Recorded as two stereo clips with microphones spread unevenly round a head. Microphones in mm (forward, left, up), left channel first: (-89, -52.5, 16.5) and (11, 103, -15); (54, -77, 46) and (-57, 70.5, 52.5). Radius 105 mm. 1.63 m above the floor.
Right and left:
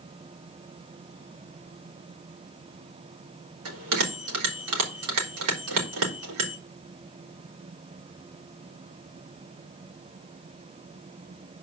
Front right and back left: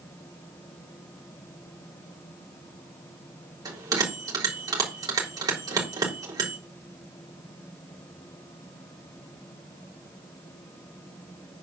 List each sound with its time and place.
3.6 s a bell: 55° left, 3.5 m